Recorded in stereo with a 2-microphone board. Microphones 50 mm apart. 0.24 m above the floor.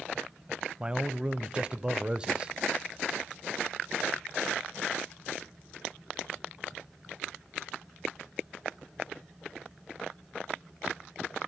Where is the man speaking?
20° right (ahead or behind), 1.0 m.